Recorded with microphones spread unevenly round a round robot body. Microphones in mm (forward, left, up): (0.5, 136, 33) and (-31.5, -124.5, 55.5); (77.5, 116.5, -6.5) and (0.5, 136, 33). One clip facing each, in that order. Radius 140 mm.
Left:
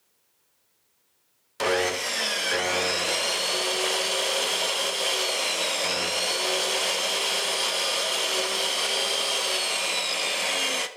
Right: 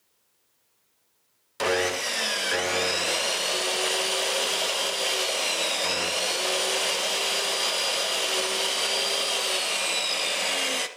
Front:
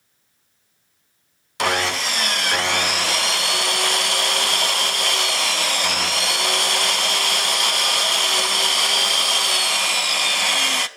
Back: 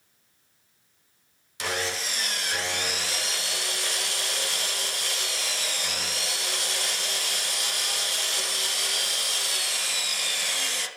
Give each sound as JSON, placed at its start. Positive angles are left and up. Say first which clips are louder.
{"t": 1.6, "sound": "sawing", "louder": "even, front 9 dB", "azimuth_deg": -10, "distance_m": 0.6}